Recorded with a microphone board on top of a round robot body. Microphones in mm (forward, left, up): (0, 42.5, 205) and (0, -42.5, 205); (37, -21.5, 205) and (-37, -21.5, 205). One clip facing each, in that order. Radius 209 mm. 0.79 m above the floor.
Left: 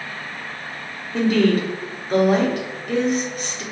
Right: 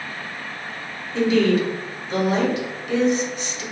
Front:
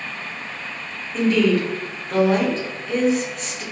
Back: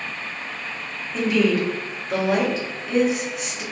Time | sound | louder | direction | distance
1.1 | a woman speaking | even, front 2 dB | 100° left | 1.2 m